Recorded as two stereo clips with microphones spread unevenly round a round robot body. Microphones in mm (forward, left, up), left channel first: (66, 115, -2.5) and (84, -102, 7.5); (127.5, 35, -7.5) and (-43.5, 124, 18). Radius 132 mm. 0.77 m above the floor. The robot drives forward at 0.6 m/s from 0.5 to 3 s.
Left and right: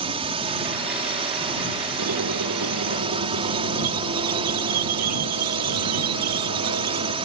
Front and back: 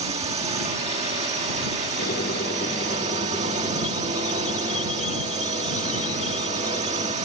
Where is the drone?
145° right; by 7.2 s 150° right.